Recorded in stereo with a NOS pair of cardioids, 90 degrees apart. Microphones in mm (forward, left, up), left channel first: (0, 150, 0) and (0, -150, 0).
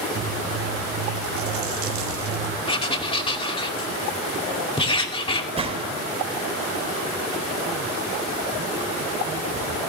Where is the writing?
20° left, 2.5 m.